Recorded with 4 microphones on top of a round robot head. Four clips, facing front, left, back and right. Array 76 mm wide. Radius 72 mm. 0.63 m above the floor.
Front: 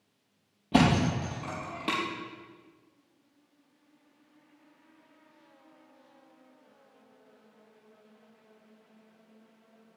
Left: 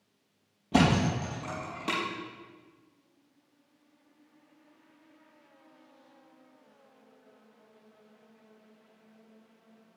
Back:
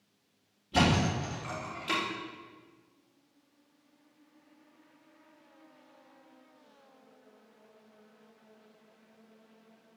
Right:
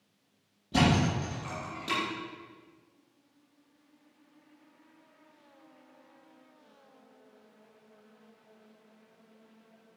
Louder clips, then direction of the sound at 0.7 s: Left 1 dB, front 3 dB; 25° left.